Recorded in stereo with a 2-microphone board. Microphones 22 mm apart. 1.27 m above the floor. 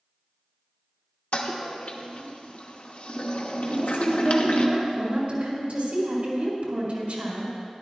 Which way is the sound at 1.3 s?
70° left (ahead or behind).